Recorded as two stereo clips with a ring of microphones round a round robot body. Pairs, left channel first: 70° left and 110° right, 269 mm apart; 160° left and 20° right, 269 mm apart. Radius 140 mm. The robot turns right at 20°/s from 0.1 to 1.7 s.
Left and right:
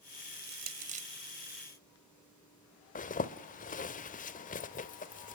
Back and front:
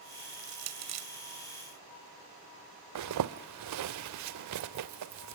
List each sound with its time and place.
0.3 s crushing: 60° right, 2.0 m; by 1.1 s 45° right, 2.0 m
3.0 s a zipper: 5° left, 1.0 m